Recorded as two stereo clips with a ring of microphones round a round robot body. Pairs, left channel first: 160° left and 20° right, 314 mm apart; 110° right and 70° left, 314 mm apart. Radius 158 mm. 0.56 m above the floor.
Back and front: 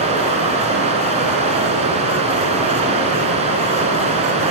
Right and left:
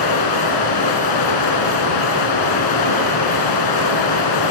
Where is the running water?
95° right, 3.5 m.